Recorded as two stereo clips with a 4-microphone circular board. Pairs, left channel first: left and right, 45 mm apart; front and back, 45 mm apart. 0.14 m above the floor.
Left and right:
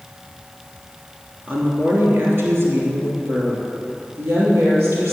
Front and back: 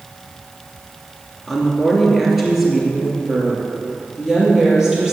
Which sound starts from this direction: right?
A woman speaking, at 1.5 s.